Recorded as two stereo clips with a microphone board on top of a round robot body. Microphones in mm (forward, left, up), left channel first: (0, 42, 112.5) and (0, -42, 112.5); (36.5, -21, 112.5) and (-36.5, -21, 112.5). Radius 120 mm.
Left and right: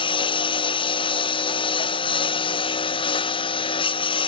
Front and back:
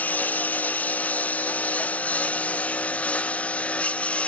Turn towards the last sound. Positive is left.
turn(degrees=75)